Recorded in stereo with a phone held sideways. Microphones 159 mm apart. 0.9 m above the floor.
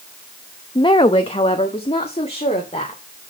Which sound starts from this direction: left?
A woman speaking, at 0.8 s.